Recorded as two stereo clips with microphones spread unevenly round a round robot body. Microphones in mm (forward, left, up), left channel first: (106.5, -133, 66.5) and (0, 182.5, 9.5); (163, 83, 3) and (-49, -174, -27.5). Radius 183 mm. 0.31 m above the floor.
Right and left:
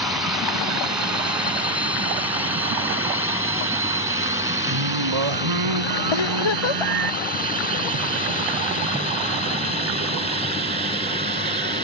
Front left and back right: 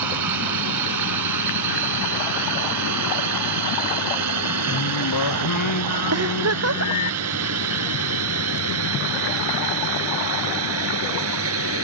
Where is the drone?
165° right; by 11.8 s 175° left.